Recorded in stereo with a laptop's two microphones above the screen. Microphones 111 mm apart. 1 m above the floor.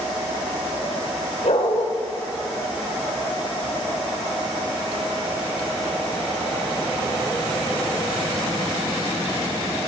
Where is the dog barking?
75° left (ahead or behind), 1.7 m.